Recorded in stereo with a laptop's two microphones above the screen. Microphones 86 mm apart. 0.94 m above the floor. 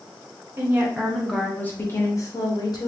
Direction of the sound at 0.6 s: 25° right (ahead or behind).